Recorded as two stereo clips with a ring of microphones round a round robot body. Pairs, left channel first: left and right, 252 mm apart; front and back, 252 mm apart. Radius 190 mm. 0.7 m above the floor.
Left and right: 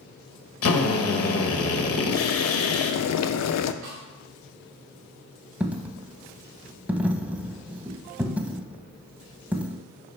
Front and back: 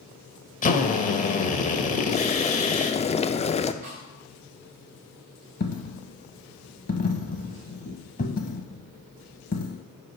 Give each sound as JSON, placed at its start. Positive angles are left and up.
{"t": 0.6, "sound": "a drill", "azimuth_deg": 60, "distance_m": 1.3}
{"t": 2.1, "sound": "boiling", "azimuth_deg": 70, "distance_m": 0.6}
{"t": 3.8, "sound": "a snare drum", "azimuth_deg": -130, "distance_m": 1.8}
{"t": 5.6, "sound": "a dropped coin", "azimuth_deg": -10, "distance_m": 0.6}